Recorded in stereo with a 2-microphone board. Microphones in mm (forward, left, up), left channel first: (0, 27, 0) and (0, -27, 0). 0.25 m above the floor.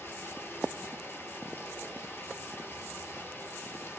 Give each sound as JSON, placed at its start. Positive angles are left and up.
{"t": 0.0, "sound": "running water", "side_deg": 45, "distance_m": 1.0}